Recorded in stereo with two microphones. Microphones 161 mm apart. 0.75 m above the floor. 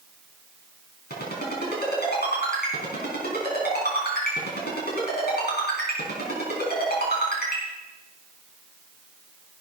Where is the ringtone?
90° left, 4.5 m.